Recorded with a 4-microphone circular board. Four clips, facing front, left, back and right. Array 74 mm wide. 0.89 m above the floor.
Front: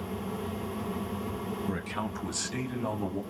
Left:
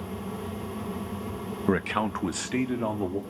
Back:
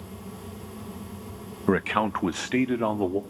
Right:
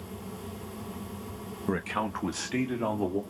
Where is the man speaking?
155° left, 1.0 m; by 3.2 s straight behind, 2.5 m.